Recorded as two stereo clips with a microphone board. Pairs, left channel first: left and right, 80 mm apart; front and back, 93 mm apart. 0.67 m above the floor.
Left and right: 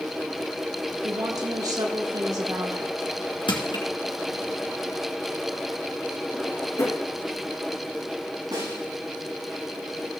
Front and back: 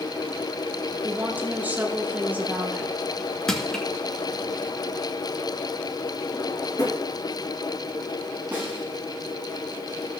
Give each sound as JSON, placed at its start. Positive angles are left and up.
{"t": 1.0, "sound": "a woman speaking", "azimuth_deg": -110, "distance_m": 1.4}
{"t": 3.5, "sound": "crushing", "azimuth_deg": 85, "distance_m": 2.5}
{"t": 6.3, "sound": "a drawer", "azimuth_deg": 45, "distance_m": 2.5}
{"t": 8.5, "sound": "a snare drum", "azimuth_deg": -105, "distance_m": 5.5}